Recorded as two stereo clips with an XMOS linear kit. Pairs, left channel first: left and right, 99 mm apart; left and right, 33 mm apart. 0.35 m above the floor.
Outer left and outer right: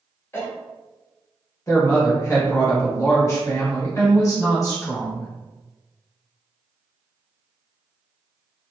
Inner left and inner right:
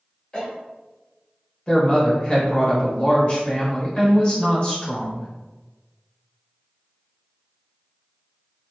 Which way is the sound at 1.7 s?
35° left (ahead or behind).